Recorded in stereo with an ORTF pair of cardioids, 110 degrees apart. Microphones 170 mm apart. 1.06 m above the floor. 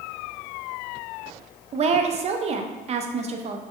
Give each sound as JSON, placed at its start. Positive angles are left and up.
{"t": 1.7, "sound": "a woman speaking", "azimuth_deg": -40, "distance_m": 0.6}